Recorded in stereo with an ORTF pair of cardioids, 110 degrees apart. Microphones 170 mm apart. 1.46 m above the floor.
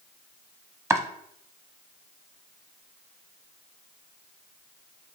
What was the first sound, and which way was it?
Chopping, 15° right.